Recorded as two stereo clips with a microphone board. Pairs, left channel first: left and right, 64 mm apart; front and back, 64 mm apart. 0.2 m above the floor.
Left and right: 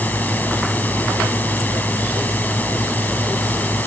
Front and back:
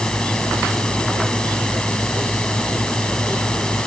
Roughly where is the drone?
Ahead left.